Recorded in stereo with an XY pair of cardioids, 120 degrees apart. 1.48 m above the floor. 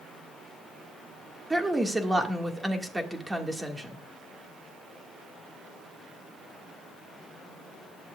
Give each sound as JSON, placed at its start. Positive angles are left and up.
{"t": 1.5, "sound": "a woman speaking", "azimuth_deg": -10, "distance_m": 2.0}